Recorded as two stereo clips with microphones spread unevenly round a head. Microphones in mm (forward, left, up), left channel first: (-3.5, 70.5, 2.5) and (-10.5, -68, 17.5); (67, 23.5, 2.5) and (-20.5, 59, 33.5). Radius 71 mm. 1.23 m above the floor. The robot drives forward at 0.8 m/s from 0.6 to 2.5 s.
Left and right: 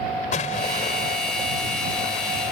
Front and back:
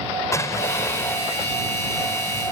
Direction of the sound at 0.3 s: 45° left.